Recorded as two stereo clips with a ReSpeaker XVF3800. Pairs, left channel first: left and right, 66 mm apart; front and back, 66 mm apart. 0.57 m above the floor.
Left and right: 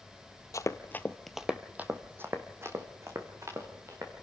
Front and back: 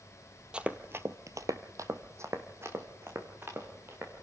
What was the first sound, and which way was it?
Running footsteps, 105° left.